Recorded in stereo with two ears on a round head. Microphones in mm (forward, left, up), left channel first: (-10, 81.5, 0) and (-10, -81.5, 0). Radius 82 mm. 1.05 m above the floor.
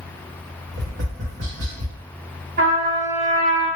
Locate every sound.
0.7 s tapping: 70° right (ahead or behind), 1.1 m
2.6 s a trumpet: 55° right (ahead or behind), 1.6 m